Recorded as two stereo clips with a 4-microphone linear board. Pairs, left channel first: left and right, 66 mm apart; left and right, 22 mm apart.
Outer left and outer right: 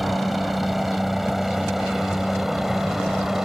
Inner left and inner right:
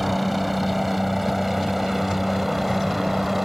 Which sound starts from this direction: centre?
A helicopter, at 0.0 s.